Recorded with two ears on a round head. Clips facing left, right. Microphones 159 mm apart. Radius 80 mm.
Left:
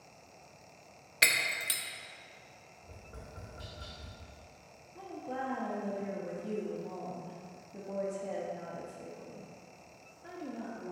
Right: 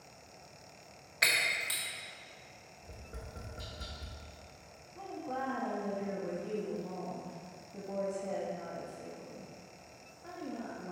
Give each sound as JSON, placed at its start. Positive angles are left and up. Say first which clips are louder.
{"t": 1.2, "sound": "breaking glass", "louder": "even", "side_deg": 35, "distance_m": 0.7}
{"t": 2.8, "sound": "tapping", "louder": "right 1 dB", "side_deg": -20, "distance_m": 1.1}
{"t": 5.0, "sound": "a woman speaking", "louder": "even", "side_deg": 10, "distance_m": 0.9}